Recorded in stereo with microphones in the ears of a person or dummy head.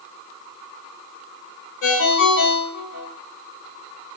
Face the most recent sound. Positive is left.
turn(degrees=70)  # may be behind; listen again after turning